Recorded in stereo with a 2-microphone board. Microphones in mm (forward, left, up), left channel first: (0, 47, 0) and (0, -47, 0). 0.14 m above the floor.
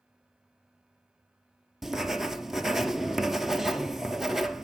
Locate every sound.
1.8 s writing: 5° right (ahead or behind), 0.6 m